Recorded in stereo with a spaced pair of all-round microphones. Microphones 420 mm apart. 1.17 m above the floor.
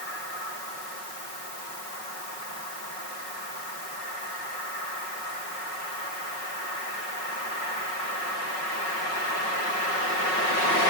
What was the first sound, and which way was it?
Only background noise.